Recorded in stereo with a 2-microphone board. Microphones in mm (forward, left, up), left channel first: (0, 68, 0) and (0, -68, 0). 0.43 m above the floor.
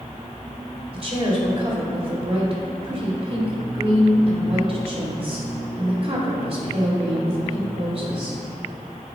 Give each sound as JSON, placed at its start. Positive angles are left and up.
{"t": 0.9, "sound": "a woman speaking", "side_deg": -45, "distance_m": 1.8}